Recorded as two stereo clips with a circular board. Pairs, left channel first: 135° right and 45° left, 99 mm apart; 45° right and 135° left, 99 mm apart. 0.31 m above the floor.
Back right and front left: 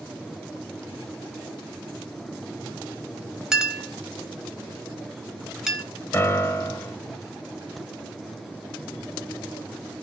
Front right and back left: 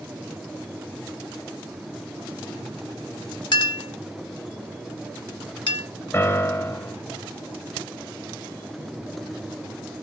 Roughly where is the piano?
Right.